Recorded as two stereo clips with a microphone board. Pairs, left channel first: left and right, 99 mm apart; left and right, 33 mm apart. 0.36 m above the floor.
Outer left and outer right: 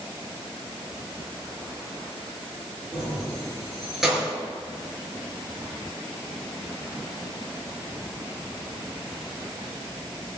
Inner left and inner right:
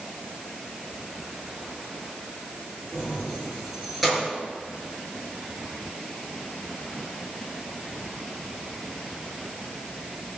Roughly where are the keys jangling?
Centre.